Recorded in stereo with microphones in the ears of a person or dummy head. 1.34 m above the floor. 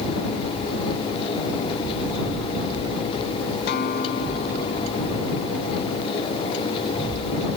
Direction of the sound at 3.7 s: 55° left (ahead or behind).